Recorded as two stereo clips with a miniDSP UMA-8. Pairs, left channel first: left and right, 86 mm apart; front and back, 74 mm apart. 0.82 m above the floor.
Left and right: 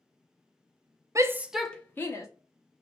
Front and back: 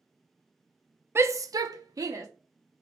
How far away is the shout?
About 0.5 m.